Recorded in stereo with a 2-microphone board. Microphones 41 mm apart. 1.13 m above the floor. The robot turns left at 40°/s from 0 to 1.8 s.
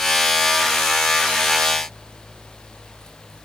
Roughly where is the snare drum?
I don't hear a snare drum.